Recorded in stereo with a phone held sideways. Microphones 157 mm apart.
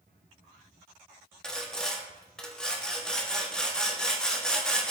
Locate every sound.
1.4 s sawing: 5° left (ahead or behind), 0.5 m